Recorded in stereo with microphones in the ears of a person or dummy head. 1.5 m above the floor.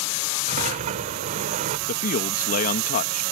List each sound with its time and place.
0.5 s a sliding door: 40° right (ahead or behind)
1.9 s a man speaking: 45° left (ahead or behind)